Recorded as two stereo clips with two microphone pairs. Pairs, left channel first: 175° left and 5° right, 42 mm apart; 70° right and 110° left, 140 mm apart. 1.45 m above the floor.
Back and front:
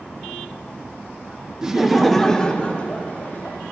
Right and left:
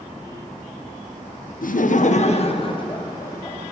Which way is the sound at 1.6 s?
80° right.